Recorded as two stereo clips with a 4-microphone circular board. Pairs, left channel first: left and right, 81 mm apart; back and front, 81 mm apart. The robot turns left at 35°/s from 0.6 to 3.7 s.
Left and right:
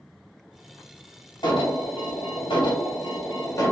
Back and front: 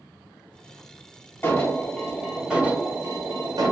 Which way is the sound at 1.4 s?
115° left.